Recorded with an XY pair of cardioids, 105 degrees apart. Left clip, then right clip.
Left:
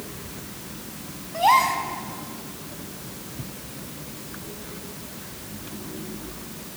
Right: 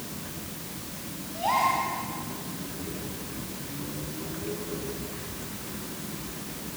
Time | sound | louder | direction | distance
1.3 | a gasp | left 6 dB | 70° left | 4.5 m